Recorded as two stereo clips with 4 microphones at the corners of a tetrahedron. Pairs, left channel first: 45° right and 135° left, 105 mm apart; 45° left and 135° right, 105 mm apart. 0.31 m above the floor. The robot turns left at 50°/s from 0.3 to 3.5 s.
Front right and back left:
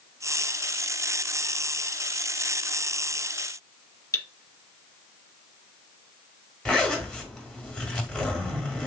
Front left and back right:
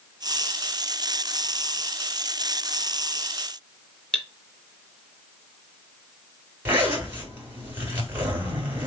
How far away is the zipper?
About 1.5 m.